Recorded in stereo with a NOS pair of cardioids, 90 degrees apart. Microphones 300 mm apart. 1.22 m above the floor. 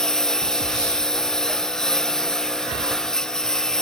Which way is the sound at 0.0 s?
Straight ahead.